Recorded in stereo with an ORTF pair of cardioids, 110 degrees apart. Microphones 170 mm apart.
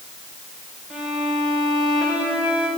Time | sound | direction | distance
0.9 | a violin | 5° right | 4 m